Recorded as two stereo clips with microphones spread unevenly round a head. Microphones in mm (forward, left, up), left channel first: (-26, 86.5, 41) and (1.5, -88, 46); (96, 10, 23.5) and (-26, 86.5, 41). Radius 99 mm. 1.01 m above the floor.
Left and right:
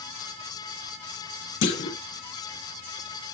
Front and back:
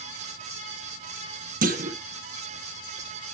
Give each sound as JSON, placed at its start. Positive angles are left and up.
{"t": 1.6, "sound": "a clunk", "azimuth_deg": 120, "distance_m": 1.5}